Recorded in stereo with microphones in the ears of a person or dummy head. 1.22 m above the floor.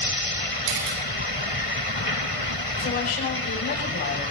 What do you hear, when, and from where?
0.7 s a camera shutter: 75° right (ahead or behind), 4 m
2.8 s a woman speaking: 50° left (ahead or behind), 7 m